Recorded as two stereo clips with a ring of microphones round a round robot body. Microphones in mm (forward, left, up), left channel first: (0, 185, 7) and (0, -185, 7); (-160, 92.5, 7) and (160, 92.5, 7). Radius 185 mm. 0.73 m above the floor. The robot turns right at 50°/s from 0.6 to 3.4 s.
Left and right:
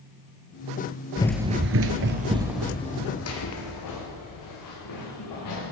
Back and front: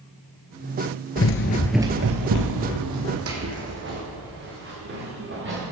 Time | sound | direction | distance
1.2 | running footsteps | 155° left | 1.0 m